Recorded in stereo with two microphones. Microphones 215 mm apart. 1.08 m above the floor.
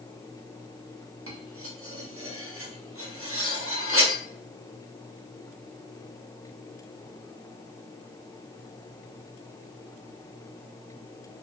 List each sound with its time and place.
1.3 s cutlery clinking: 70° right (ahead or behind), 0.9 m